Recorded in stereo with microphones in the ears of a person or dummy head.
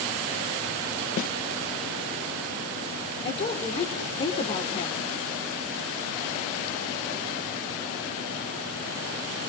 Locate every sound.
1.2 s a snare drum: 45° left (ahead or behind), 0.7 m
3.2 s a woman speaking: 35° left (ahead or behind), 4 m